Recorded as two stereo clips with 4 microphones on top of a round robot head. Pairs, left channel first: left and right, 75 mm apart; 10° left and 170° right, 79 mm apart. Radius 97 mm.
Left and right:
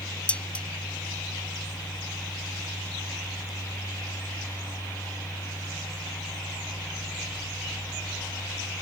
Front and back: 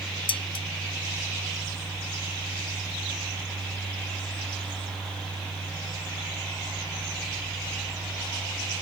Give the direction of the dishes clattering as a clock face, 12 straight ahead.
12 o'clock.